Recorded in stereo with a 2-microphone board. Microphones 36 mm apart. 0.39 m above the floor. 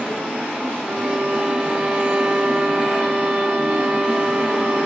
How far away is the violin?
About 0.8 m.